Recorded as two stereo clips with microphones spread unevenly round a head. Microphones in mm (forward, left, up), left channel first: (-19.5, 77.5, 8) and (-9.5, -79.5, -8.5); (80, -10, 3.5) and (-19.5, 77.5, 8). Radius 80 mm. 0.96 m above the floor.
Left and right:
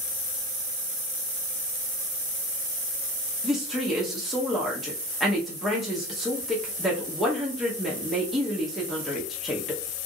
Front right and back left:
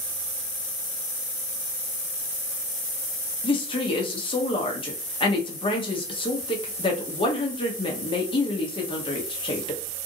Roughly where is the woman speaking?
Ahead.